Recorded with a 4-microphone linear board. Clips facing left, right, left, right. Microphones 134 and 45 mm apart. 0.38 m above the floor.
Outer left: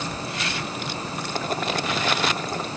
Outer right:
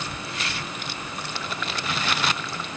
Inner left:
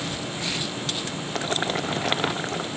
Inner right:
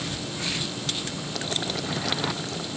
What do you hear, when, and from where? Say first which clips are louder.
1.4 s boiling: outer left 8 dB, inner left 5 dB; 40° left (ahead or behind)